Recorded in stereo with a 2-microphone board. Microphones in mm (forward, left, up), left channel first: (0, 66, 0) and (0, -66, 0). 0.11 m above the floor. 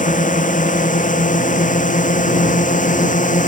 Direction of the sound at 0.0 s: 80° left.